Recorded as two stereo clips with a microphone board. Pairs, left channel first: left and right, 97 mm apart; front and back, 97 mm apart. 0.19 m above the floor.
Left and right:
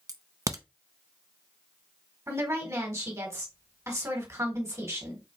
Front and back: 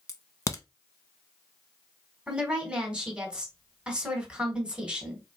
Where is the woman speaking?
110° right, 1.6 m.